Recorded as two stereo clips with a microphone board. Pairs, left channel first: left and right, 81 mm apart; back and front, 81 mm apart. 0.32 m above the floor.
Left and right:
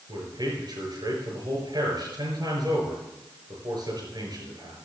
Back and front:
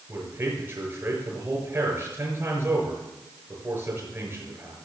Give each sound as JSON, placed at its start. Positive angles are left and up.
{"t": 0.1, "sound": "a man speaking", "azimuth_deg": -60, "distance_m": 5.5}